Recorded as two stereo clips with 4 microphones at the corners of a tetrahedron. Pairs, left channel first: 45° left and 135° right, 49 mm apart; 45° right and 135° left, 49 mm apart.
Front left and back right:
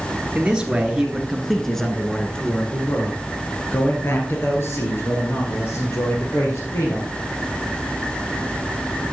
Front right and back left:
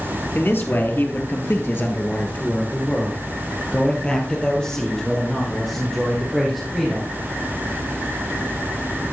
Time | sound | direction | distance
0.3 | a man speaking | 65° right | 1.8 m